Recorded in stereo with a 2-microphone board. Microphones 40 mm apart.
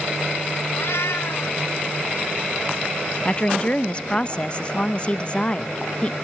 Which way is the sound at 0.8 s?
75° left (ahead or behind).